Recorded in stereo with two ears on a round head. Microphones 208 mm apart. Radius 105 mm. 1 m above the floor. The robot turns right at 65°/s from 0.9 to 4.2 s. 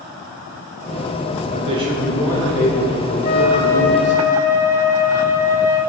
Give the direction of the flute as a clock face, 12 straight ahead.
8 o'clock.